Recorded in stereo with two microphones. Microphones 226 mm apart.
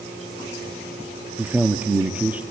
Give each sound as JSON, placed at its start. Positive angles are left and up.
{"t": 1.4, "sound": "a man speaking", "side_deg": -5, "distance_m": 1.0}